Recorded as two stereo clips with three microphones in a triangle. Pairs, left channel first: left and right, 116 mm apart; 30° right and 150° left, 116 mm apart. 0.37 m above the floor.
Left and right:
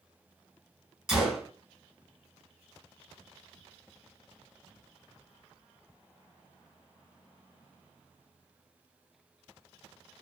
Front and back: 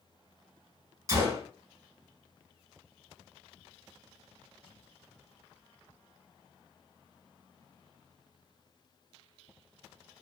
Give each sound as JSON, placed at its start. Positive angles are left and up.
{"t": 1.1, "sound": "a gunshot", "azimuth_deg": -175, "distance_m": 1.0}